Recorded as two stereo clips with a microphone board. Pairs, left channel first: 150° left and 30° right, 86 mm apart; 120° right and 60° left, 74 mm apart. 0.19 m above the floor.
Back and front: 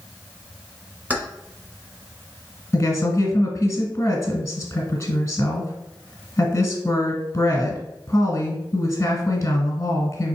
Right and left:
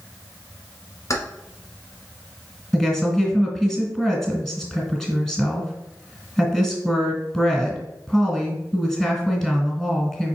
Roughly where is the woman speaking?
Behind left.